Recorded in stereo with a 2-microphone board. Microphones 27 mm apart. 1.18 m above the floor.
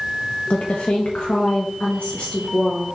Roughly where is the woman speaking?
Left.